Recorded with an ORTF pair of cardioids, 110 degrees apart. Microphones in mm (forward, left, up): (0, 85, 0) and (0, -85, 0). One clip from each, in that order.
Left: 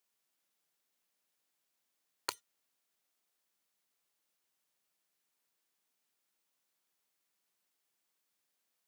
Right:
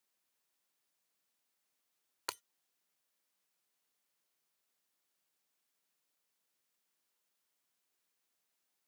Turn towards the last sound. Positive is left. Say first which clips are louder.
# left 2 dB
turn(degrees=15)